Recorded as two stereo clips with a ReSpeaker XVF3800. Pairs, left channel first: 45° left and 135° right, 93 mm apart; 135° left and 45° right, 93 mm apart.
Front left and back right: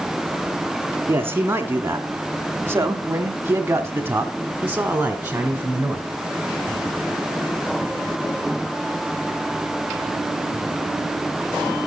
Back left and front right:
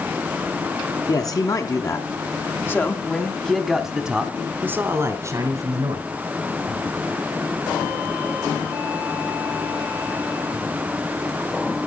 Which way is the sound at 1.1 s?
165° left.